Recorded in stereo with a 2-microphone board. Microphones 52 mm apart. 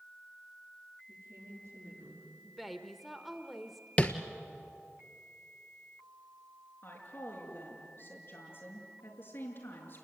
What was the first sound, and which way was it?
A woman speaking, 65° right (ahead or behind).